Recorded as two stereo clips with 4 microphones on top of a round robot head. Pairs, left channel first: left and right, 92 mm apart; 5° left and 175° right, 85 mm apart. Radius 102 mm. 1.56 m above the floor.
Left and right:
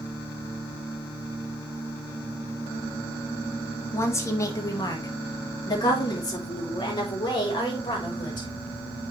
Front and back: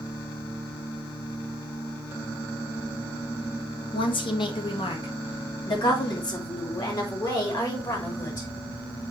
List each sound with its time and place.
3.9 s a woman speaking: 25° left, 1.4 m; by 8.5 s 50° left, 4.5 m